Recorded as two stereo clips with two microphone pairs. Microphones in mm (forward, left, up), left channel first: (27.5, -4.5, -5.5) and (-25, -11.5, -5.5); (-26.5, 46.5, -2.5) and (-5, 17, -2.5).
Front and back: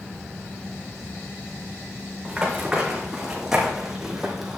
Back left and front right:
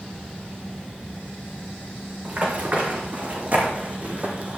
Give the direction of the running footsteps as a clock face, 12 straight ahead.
3 o'clock.